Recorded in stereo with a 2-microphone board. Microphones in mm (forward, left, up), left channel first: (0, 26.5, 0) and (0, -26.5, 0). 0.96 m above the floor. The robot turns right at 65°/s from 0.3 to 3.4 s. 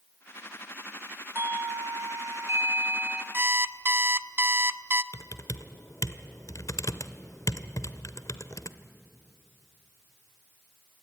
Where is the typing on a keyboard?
65° left (ahead or behind), 1.1 m.